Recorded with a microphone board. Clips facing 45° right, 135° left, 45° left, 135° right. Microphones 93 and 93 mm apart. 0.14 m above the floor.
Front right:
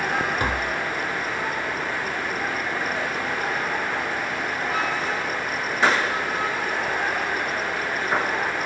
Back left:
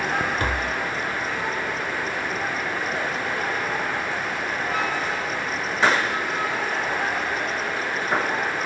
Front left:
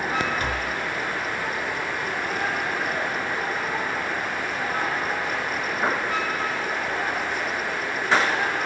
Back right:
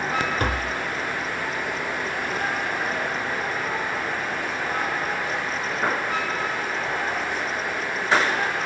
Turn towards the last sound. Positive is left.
turn(degrees=-120)